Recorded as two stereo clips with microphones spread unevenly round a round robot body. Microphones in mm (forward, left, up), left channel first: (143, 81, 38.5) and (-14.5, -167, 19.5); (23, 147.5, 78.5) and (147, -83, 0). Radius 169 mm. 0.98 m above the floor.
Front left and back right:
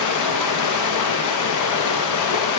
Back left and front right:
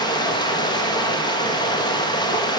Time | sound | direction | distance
0.0 | running water | 40° left | 1.1 m